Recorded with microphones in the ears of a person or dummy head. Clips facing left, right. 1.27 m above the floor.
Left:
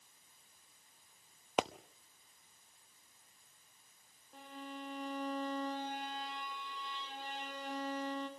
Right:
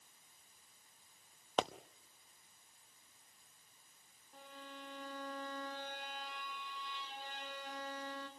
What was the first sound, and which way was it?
A pop, 5° left (ahead or behind).